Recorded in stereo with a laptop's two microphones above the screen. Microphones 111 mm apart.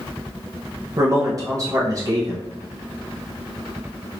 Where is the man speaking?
35° right (ahead or behind), 0.9 m.